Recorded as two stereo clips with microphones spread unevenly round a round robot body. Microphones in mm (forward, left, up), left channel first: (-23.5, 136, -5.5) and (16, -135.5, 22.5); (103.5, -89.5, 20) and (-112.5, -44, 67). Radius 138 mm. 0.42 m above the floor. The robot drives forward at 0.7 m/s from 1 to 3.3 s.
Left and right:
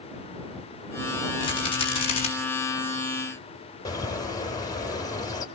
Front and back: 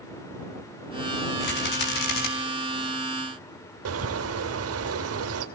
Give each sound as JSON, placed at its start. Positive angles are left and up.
{"t": 1.4, "sound": "a rattle", "azimuth_deg": 25, "distance_m": 5.0}
{"t": 3.9, "sound": "a bird", "azimuth_deg": 170, "distance_m": 2.5}